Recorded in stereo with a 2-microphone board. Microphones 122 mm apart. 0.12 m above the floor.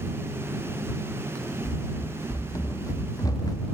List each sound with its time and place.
1.6 s running footsteps: 25° left (ahead or behind); by 3.6 s 30° left (ahead or behind)